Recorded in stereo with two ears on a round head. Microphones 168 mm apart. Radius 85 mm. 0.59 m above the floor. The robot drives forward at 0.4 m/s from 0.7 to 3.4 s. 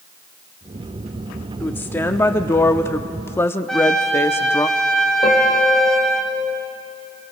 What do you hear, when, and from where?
1.6 s a woman speaking: 10° left (ahead or behind), 0.8 m; by 4.7 s 15° left (ahead or behind), 0.7 m
3.7 s a trumpet: 5° left (ahead or behind), 1.7 m
5.2 s a piano: 20° left (ahead or behind), 5 m